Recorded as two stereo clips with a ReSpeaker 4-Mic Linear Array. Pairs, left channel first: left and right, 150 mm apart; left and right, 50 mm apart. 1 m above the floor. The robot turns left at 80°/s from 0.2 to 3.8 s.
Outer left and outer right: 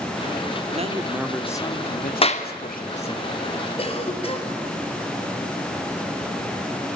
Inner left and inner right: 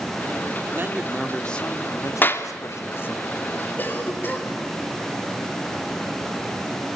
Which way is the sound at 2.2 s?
35° left (ahead or behind).